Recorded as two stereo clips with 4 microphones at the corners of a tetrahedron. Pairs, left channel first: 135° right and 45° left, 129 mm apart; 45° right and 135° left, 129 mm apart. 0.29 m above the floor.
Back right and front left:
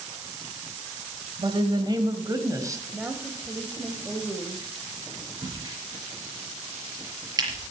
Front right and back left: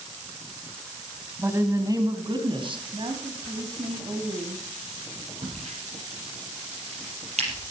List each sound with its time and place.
1.4 s a woman speaking: 70° left, 1.6 m; by 2.8 s 105° left, 2 m
2.9 s a woman speaking: 120° left, 1.3 m
5.4 s a crack: 105° left, 5 m